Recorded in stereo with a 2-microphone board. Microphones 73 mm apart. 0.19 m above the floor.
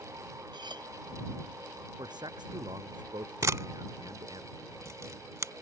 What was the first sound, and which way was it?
Cutlery clinking, 80° right.